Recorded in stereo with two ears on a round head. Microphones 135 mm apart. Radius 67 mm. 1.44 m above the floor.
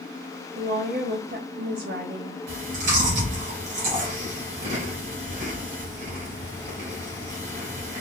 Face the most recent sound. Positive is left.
turn(degrees=-55)  # may be behind; listen again after turning